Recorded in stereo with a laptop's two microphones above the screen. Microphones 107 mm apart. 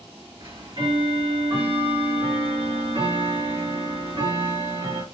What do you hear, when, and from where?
0.4 s ticking: 50° right (ahead or behind), 1.2 m